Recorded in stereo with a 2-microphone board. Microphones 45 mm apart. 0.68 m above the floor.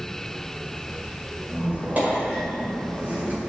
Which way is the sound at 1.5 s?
40° right (ahead or behind).